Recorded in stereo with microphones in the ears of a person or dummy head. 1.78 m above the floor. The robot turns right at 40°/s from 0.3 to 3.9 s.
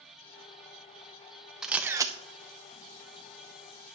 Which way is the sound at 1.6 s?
Centre (ahead or behind).